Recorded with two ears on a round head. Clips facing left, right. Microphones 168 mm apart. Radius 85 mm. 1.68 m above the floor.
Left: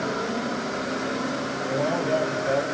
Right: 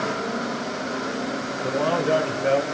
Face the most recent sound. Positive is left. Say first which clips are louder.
# right 3 dB
turn(degrees=-80)